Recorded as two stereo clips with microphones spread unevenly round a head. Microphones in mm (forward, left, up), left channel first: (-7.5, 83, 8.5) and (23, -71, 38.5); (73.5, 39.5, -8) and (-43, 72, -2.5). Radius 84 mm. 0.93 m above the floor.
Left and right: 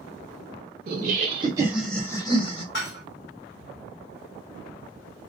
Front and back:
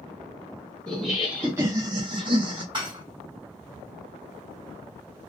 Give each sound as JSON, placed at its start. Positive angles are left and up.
{"t": 0.9, "sound": "laughter", "azimuth_deg": -95, "distance_m": 0.8}
{"t": 2.7, "sound": "dishes clattering", "azimuth_deg": 115, "distance_m": 1.4}